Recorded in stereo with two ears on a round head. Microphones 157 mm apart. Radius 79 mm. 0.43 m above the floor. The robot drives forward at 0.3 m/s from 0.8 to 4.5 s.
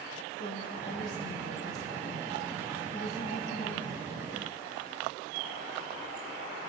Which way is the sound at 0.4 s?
60° left (ahead or behind).